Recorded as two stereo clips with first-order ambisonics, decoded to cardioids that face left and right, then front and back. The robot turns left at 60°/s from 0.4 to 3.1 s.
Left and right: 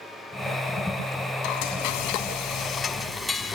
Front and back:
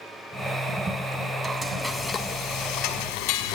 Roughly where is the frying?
Left.